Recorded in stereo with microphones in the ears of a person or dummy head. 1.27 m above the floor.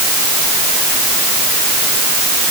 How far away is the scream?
No scream in this recording.